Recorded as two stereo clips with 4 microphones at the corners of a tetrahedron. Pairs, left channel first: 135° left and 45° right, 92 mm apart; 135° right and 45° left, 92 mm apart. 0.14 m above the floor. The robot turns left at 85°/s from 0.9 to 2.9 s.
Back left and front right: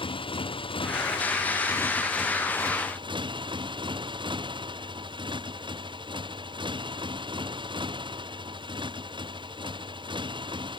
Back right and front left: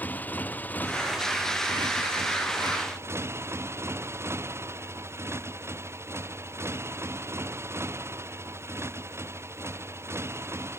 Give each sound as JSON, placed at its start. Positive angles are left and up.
{"t": 0.0, "sound": "a motorcycle", "azimuth_deg": 155}